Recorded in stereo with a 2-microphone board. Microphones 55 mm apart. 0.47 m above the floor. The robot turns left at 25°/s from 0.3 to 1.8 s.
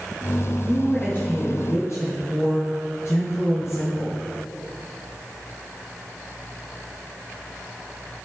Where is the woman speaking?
20° left (ahead or behind), 2.5 m; by 4.2 s 50° left (ahead or behind), 2.5 m.